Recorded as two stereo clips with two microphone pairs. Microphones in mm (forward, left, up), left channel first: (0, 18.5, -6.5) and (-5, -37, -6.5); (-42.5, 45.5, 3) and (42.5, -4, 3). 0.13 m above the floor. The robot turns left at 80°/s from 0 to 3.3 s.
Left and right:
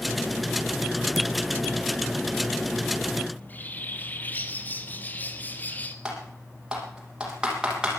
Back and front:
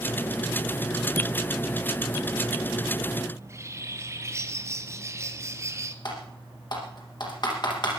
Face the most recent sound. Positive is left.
turn(degrees=-170)